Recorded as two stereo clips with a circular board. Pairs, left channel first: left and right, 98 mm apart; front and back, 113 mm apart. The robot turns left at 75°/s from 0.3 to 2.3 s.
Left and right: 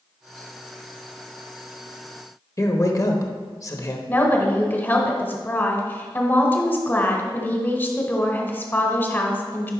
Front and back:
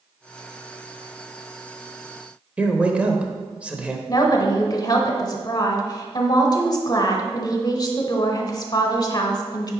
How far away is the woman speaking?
About 1.2 m.